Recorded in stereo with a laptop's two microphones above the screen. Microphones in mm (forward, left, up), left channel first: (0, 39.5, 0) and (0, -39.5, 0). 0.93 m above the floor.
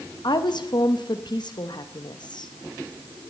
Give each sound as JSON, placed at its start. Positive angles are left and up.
{"t": 0.2, "sound": "a woman speaking", "side_deg": 70, "distance_m": 1.0}